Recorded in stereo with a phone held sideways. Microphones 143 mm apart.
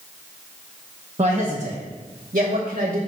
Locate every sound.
1.2 s a man speaking: 45° right (ahead or behind), 0.9 m; by 3.0 s 80° right, 1.6 m